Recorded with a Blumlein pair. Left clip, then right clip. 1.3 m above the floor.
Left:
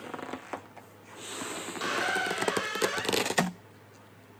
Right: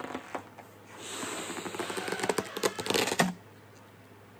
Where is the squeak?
30° left, 0.7 m.